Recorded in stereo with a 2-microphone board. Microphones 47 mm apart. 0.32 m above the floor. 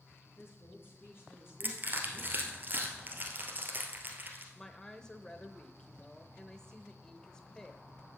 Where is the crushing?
40° right (ahead or behind), 1.6 m.